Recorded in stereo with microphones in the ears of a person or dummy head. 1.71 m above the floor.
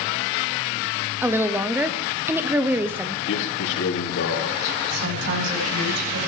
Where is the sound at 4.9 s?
65° right (ahead or behind), 9 m.